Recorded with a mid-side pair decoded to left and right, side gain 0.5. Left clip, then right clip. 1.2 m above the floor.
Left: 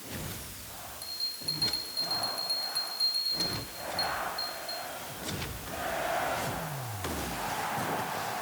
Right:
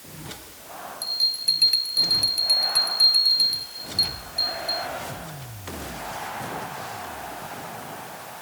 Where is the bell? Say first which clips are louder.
Right 12 dB; 60° right.